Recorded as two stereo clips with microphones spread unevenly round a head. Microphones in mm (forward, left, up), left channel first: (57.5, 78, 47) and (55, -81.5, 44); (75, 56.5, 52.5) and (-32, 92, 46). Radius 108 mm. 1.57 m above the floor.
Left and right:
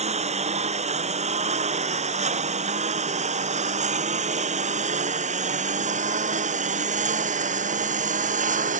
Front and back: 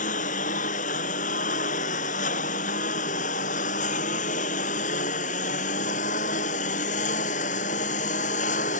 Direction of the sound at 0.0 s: 45° right.